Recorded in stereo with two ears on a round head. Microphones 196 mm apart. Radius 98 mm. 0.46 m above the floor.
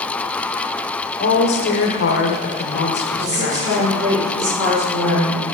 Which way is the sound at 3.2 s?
15° right (ahead or behind).